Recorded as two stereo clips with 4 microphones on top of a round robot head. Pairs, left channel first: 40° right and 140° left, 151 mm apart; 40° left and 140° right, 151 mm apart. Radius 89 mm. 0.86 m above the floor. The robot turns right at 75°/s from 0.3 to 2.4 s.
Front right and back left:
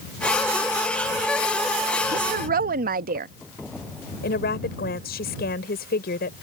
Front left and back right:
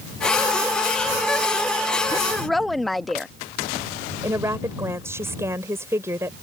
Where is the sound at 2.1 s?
110° left; by 3.3 s 130° left.